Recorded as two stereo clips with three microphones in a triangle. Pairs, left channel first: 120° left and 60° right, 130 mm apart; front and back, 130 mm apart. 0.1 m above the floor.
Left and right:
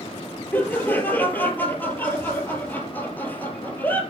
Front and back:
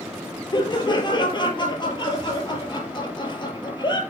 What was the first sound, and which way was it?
Laughter, 45° left.